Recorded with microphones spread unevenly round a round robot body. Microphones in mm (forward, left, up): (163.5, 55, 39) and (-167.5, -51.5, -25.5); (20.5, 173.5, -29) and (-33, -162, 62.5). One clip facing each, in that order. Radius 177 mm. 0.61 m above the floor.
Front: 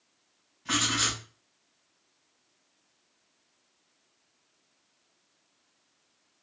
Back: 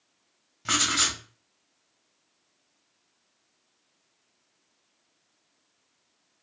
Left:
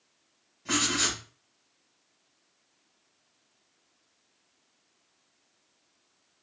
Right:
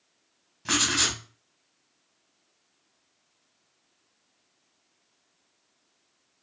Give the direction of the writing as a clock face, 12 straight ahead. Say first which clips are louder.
Front 1 dB, even; 5 o'clock.